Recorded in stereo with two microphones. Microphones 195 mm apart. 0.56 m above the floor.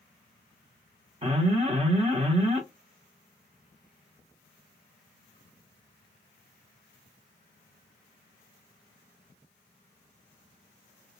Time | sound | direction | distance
1.2 | an alarm | 30° right (ahead or behind) | 0.6 m